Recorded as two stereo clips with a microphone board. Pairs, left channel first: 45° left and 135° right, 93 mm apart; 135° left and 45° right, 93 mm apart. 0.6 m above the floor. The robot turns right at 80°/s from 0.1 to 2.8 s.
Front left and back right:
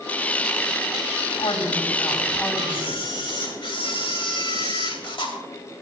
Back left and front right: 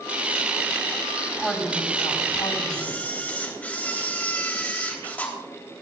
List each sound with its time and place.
1.4 s a woman speaking: 35° left, 3.5 m; by 3.0 s 145° left, 3.5 m
2.7 s a camera shutter: 55° left, 3 m; by 5.3 s 60° left, 3 m